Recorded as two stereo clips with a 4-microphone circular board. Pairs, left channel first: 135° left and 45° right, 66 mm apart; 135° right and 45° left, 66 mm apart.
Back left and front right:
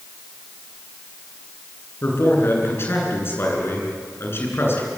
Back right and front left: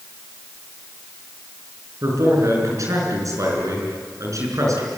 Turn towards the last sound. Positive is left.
turn(degrees=85)